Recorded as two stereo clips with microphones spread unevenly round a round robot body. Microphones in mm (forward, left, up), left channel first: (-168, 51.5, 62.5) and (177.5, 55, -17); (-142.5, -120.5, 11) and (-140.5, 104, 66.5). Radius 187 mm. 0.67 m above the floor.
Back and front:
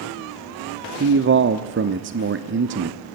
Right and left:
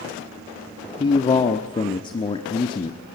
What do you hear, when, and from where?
1.0 s a man speaking: 35° right, 0.8 m